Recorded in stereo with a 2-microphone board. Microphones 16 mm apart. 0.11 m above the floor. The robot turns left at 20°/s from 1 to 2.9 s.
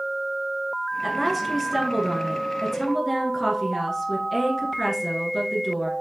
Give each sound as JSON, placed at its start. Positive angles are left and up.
{"t": 1.0, "sound": "a woman speaking", "side_deg": -10, "distance_m": 1.3}